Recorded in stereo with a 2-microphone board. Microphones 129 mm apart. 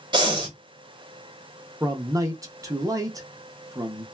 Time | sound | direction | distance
0.1 | breathing | 35° right (ahead or behind) | 1.0 m
1.8 | a man speaking | 25° right (ahead or behind) | 0.6 m